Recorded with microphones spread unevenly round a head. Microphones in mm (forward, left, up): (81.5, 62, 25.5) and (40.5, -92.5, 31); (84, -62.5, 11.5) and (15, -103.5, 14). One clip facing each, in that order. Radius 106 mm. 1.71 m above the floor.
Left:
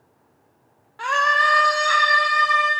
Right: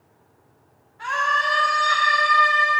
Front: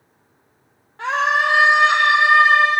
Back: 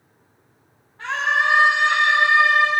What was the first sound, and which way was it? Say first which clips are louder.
A scream: left 3 dB, front 3 dB; 75° left.